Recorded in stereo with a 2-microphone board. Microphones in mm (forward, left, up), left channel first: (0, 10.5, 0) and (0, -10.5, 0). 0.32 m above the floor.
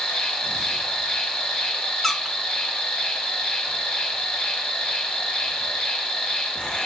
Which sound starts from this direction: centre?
A squeak, at 2.0 s.